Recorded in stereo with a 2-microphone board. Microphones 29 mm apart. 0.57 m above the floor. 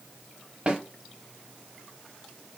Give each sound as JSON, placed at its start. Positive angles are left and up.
{"t": 0.7, "sound": "a snare drum", "side_deg": -30, "distance_m": 0.8}